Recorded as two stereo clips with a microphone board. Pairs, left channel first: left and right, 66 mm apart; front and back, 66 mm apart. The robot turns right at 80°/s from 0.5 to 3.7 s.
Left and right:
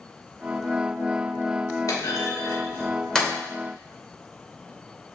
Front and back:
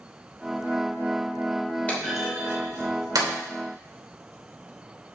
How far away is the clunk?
About 2.5 m.